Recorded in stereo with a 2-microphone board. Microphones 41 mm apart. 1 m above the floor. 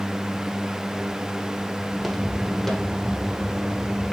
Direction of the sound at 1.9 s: 5° right (ahead or behind).